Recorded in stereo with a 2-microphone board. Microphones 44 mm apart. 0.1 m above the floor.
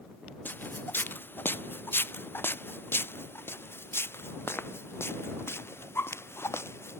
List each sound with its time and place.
0.5 s footsteps: 45° left (ahead or behind); by 7.0 s 65° left (ahead or behind)